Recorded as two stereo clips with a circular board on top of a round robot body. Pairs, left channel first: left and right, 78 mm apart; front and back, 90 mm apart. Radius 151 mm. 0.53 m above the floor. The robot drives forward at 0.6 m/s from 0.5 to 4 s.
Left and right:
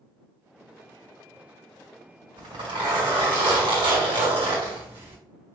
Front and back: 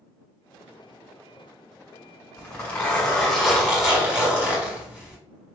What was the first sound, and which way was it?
A zipper, 65° right.